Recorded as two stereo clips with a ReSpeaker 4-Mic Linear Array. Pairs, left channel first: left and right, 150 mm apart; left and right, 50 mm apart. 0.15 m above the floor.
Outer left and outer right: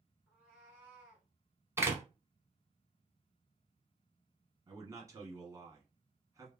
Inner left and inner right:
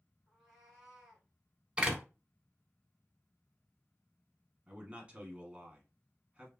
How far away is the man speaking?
About 1.1 m.